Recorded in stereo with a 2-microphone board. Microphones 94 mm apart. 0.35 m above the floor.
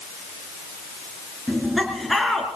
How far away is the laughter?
About 4 m.